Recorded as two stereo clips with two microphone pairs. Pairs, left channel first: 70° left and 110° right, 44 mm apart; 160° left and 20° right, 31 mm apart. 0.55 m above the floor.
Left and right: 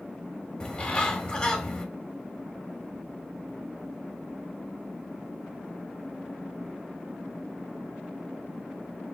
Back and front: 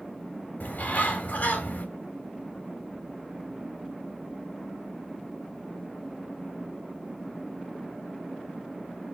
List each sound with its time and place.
0.6 s a bird: 145° left, 2 m